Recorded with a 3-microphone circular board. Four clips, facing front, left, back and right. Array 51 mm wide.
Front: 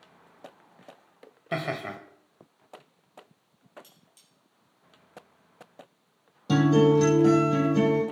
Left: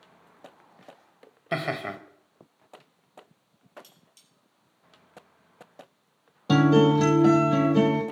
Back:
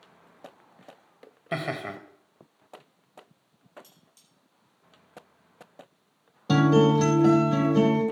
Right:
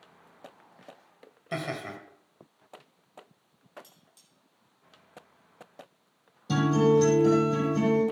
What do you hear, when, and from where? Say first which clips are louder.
1.5 s laughter: left 5 dB, even; 100° left, 1.2 m
3.8 s cutlery clinking: left 1 dB, even; 85° left, 4 m
6.5 s a guitar: left 4 dB, even; 120° left, 3.5 m